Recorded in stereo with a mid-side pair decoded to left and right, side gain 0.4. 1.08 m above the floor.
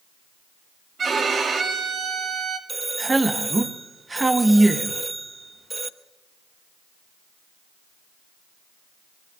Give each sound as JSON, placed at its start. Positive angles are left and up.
{"t": 1.0, "sound": "a violin", "azimuth_deg": -50, "distance_m": 2.0}
{"t": 2.7, "sound": "a man speaking", "azimuth_deg": -20, "distance_m": 1.4}